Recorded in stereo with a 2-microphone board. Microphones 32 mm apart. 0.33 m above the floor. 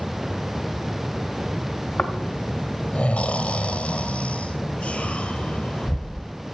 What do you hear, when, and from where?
2.0 s snoring: 45° left (ahead or behind), 1.1 m